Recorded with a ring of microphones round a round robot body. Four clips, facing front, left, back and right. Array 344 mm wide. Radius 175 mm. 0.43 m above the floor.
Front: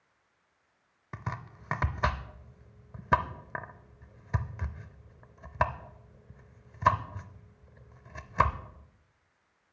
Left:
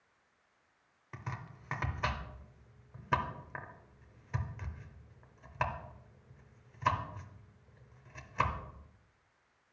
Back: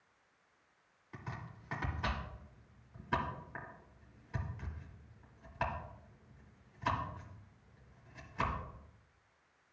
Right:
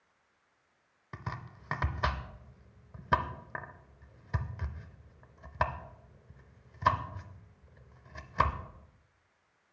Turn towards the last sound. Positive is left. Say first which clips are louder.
# right 3 dB, front 8 dB
turn(degrees=-15)